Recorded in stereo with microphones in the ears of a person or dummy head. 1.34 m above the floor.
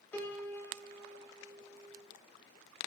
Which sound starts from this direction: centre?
A piano, at 0.1 s.